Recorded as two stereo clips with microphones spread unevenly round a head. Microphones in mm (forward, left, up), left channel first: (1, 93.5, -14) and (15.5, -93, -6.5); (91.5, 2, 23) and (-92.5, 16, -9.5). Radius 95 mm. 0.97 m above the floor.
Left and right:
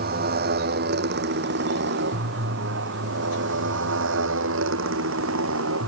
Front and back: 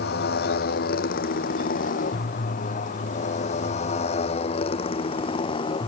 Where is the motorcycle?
45° right; by 5.9 s 70° right.